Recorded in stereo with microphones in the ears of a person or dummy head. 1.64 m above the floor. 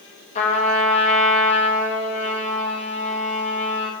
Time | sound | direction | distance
0.3 | a trumpet | 35° left (ahead or behind) | 1.3 m